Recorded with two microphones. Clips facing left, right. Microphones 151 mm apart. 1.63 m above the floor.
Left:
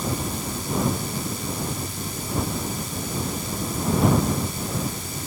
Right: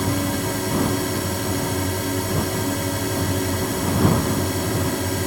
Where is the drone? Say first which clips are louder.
Right 6 dB; 80° right.